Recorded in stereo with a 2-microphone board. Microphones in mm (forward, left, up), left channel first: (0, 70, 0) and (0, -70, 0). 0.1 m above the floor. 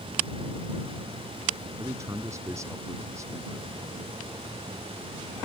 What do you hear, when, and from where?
1.8 s a man speaking: 20° right (ahead or behind)